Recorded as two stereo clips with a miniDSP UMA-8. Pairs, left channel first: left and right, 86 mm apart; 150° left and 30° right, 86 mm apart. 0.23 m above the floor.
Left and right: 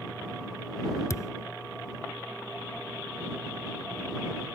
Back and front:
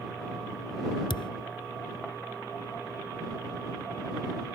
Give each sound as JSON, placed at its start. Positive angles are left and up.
{"t": 1.1, "sound": "a thud", "azimuth_deg": 140}